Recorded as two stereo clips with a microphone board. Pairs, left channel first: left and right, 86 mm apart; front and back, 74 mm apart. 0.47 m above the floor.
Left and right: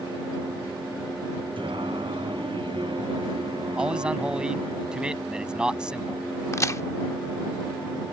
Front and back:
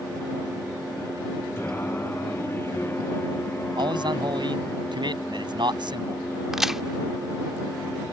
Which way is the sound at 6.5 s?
100° left.